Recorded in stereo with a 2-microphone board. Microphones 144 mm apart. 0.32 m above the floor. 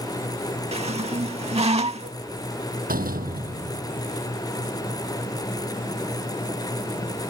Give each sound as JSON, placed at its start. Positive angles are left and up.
{"t": 0.7, "sound": "a squeak", "side_deg": -45}
{"t": 2.9, "sound": "a door slam", "side_deg": -85}